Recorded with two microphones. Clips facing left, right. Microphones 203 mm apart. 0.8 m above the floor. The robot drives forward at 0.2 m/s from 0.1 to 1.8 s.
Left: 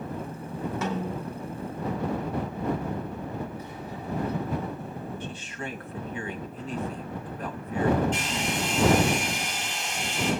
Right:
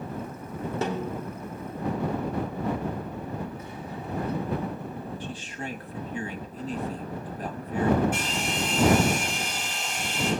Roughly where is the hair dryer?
Centre.